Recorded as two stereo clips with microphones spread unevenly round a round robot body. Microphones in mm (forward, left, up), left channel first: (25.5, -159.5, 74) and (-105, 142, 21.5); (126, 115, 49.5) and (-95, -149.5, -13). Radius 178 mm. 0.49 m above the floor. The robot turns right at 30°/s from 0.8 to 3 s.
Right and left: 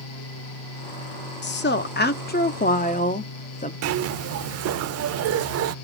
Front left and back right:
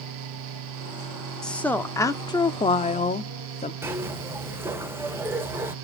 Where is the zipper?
150° left, 0.7 m.